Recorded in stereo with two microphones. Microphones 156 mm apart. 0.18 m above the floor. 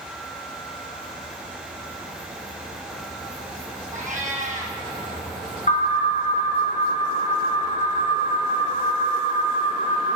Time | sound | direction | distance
3.9 | a cat meowing | 55° right (ahead or behind) | 2 m
5.7 | an alarm | 55° left (ahead or behind) | 3 m